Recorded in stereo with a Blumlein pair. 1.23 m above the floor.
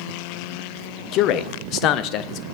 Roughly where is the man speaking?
Ahead left.